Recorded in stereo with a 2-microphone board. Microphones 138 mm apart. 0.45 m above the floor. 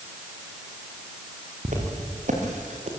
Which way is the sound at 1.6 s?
65° right (ahead or behind).